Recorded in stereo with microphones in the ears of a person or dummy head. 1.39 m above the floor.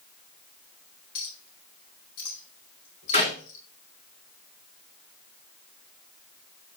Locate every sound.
1.1 s a clink: 80° left, 2.5 m
3.1 s a clap: 30° left (ahead or behind), 3 m